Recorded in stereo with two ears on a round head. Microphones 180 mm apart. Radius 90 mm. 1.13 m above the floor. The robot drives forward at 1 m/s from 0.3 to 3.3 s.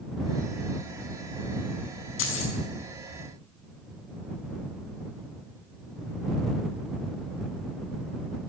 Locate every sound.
2.2 s keys jangling: 70° left (ahead or behind), 6 m